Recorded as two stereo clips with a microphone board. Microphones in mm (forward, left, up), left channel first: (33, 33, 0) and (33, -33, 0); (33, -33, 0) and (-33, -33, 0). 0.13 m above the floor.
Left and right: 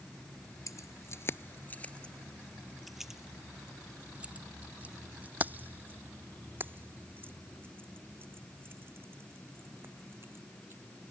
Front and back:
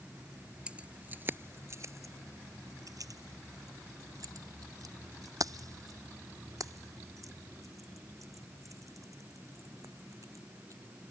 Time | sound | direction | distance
0.7 | keys jangling | 110° left | ?